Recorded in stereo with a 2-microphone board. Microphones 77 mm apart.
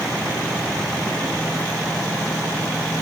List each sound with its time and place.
Only background noise.